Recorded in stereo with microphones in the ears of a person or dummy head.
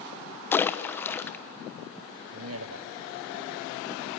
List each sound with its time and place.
0.5 s a splash: 10° left (ahead or behind), 1.1 m
2.3 s a man speaking: 70° right (ahead or behind), 0.7 m